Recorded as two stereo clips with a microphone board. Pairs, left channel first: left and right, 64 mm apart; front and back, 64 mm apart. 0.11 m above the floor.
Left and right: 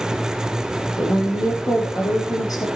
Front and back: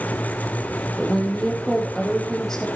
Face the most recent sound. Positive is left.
turn(degrees=85)